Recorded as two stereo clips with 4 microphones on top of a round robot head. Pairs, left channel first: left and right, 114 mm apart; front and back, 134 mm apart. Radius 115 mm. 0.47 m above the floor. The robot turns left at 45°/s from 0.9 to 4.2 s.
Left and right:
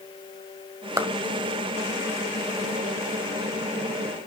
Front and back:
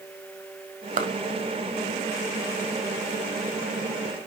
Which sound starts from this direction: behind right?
A clap, at 1.0 s.